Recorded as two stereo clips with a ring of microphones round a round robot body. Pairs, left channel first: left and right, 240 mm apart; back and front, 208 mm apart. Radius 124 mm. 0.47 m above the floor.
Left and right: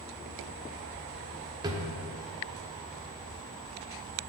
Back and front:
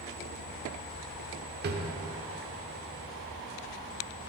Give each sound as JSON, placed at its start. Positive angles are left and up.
{"t": 1.6, "sound": "a drawer", "azimuth_deg": -20, "distance_m": 0.7}